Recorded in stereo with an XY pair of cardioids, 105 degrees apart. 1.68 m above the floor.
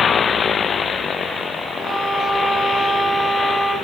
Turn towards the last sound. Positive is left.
turn(degrees=45)